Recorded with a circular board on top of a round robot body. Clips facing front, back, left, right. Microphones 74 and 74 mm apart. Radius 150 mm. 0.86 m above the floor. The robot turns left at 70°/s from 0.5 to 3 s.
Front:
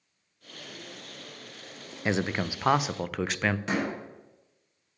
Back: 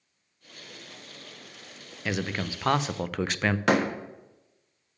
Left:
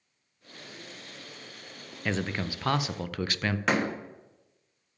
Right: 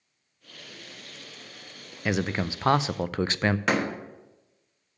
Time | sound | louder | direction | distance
2.0 | a man speaking | front 2 dB, right 4 dB | 20° right | 0.5 m
3.7 | a door slam | back 6 dB, left 2 dB | straight behind | 1.2 m